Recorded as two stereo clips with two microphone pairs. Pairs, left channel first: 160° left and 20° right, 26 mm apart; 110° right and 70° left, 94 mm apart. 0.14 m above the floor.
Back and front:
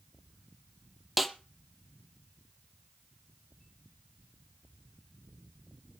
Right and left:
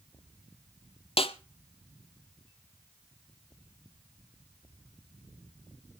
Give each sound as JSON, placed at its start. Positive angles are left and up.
{"t": 1.2, "sound": "a snare drum", "azimuth_deg": -105, "distance_m": 1.1}